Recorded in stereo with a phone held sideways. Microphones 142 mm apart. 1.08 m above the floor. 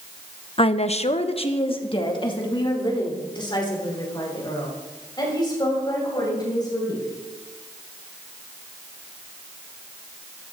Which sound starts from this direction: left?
A woman speaking, at 0.6 s.